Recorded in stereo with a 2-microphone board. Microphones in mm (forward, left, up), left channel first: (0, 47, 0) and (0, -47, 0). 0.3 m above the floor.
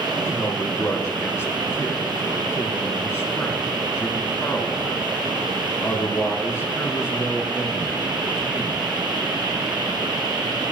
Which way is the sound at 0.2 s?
30° left (ahead or behind).